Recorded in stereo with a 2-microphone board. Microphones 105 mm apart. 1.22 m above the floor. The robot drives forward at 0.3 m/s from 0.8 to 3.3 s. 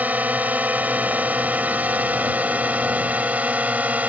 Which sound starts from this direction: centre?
A drone, at 0.0 s.